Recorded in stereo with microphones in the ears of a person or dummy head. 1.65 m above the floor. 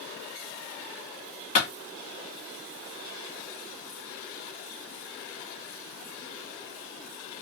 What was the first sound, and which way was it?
A clap, 40° left (ahead or behind).